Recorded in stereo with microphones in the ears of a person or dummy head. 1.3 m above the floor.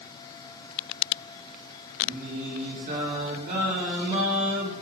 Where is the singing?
50° right (ahead or behind), 3 m.